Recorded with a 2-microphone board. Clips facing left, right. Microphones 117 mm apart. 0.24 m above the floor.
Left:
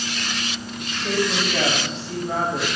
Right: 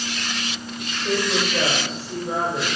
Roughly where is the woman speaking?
Left.